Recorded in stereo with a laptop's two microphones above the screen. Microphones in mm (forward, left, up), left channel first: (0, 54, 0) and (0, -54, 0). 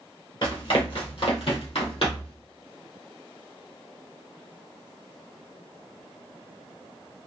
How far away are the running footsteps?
About 1.4 m.